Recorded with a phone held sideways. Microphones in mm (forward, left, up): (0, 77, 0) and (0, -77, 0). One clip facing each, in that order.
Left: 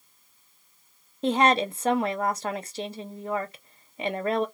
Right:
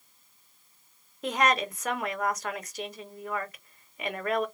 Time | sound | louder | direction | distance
1.2 | a woman speaking | left 5 dB | 30° left (ahead or behind) | 0.6 m